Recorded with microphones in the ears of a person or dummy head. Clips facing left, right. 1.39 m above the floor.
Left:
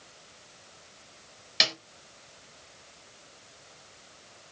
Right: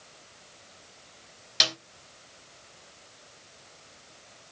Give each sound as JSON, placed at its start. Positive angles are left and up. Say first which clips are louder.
{"t": 1.6, "sound": "a snare drum", "louder": "even", "side_deg": 5, "distance_m": 1.4}